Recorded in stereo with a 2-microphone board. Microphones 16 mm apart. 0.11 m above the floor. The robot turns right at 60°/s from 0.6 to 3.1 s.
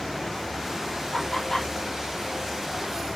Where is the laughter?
45° left (ahead or behind), 2.5 m; by 1.7 s 20° left (ahead or behind), 2.5 m.